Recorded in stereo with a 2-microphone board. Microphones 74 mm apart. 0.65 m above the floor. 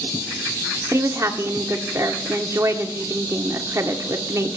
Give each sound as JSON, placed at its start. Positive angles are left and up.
{"t": 0.9, "sound": "a woman speaking", "side_deg": -40, "distance_m": 1.3}